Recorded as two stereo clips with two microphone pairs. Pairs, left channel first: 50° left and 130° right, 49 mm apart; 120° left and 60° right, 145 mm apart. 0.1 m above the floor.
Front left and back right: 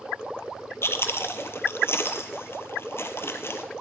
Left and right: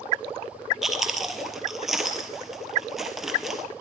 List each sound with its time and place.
0.8 s chewing: 30° left, 1.3 m